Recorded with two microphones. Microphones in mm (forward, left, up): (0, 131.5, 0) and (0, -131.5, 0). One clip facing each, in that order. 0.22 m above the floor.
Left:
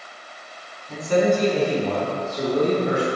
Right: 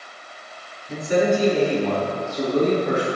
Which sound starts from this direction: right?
A man speaking, at 0.9 s.